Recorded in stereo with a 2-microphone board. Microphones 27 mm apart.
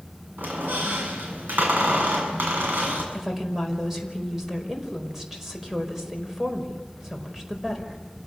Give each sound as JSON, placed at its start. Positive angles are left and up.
{"t": 0.4, "sound": "a squeak", "side_deg": -85, "distance_m": 7.5}
{"t": 3.1, "sound": "a woman speaking", "side_deg": -10, "distance_m": 5.0}